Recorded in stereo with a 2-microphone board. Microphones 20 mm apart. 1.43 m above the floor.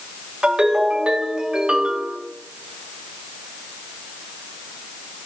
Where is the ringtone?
55° right (ahead or behind), 3 m.